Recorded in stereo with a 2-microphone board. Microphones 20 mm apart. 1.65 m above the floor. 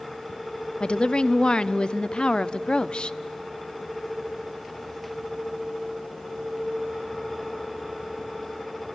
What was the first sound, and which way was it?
A woman speaking, 50° left (ahead or behind).